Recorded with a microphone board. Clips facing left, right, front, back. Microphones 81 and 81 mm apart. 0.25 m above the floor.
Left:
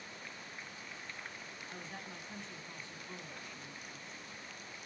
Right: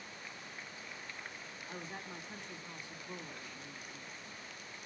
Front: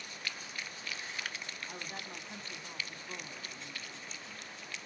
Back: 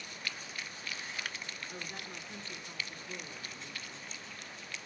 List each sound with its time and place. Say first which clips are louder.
1.7 s a woman speaking: right 3 dB, even; 20° right, 1.6 m